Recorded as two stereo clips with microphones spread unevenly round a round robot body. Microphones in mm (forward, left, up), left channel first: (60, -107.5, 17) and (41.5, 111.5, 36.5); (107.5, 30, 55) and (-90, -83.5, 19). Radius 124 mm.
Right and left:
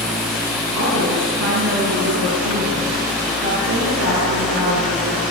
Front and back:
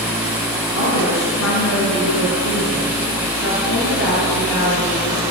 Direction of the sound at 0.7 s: 65° left.